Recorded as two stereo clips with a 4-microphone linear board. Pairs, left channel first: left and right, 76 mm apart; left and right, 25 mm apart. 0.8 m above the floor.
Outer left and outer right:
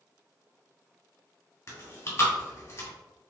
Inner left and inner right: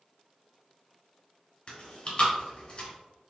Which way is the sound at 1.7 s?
40° left (ahead or behind).